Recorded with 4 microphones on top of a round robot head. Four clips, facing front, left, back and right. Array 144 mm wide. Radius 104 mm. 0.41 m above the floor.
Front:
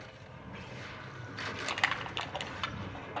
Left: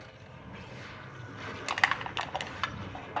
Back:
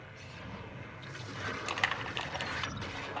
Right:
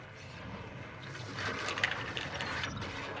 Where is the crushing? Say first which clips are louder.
Left 7 dB, front 2 dB; 85° left, 2.5 m.